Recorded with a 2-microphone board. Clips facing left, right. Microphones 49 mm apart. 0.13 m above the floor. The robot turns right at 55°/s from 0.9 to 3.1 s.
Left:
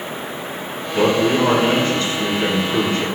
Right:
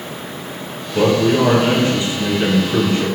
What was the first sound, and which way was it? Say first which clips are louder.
A man speaking: right 2 dB; 5° right (ahead or behind).